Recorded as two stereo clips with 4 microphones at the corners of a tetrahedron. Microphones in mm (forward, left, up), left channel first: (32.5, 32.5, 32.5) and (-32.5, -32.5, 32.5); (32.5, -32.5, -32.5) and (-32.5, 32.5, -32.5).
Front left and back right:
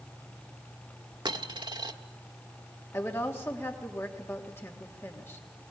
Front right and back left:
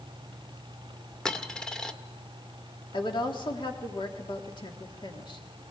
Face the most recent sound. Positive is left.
turn(degrees=-20)